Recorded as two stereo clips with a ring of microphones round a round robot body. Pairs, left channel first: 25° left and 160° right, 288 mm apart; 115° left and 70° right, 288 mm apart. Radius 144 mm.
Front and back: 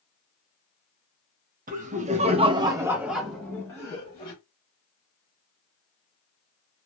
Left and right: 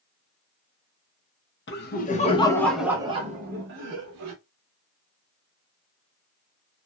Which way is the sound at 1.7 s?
150° left.